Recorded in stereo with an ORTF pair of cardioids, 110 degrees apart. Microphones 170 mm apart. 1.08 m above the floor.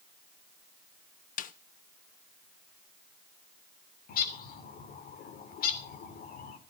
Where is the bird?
60° left, 3 m.